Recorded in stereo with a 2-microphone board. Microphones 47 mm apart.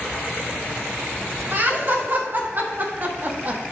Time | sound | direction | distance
1.5 | laughter | 50° right (ahead or behind) | 2.5 m